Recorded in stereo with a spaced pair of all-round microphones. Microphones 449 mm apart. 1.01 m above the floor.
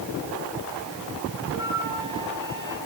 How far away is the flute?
About 8 m.